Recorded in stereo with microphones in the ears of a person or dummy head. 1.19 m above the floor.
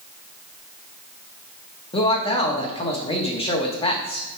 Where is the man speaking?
35° left (ahead or behind), 1.0 m.